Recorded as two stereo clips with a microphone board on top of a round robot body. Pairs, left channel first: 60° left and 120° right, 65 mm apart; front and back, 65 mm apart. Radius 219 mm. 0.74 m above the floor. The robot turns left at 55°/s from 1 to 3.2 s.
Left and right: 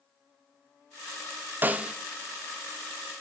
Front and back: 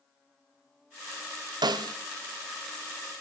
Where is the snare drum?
175° left, 0.5 m; by 1.9 s 160° left, 0.5 m.